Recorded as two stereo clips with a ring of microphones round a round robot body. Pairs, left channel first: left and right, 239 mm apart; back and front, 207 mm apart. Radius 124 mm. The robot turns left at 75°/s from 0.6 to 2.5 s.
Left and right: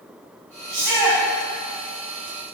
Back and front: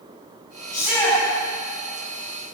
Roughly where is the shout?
Right.